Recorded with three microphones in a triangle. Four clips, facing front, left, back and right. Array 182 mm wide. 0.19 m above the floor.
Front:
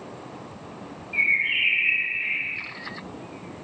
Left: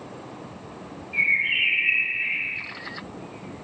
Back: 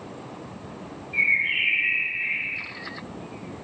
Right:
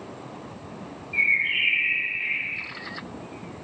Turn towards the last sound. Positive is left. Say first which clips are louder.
# even, even
turn(degrees=75)